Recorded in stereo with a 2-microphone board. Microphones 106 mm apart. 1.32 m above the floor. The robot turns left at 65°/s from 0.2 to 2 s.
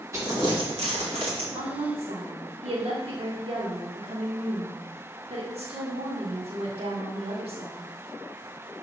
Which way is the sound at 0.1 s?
30° right (ahead or behind).